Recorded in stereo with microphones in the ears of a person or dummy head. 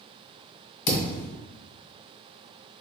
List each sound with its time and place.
0.9 s a thud: 55° left (ahead or behind), 1.3 m